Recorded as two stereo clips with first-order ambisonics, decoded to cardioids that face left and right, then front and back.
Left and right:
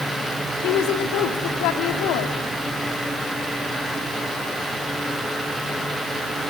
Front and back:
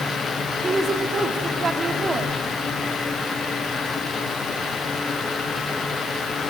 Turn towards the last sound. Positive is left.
turn(degrees=110)